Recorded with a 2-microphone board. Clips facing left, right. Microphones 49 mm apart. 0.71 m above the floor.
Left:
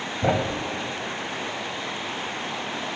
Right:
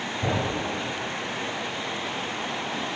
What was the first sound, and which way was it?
A thud, 45° left (ahead or behind).